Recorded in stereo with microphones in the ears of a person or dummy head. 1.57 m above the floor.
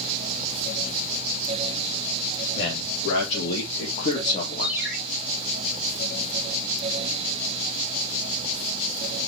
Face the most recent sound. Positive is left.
turn(degrees=-5)  # may be behind; listen again after turning